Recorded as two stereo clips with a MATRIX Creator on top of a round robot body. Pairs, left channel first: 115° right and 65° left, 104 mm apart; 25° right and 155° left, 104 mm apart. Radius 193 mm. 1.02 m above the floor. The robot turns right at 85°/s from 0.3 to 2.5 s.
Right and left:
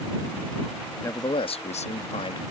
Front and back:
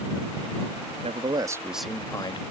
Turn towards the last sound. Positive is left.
turn(degrees=-55)